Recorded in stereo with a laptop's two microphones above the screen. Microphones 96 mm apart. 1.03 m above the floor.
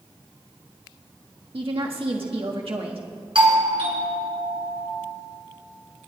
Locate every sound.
1.5 s a woman speaking: 75° right (ahead or behind), 1.4 m
3.4 s a doorbell: 60° right (ahead or behind), 2 m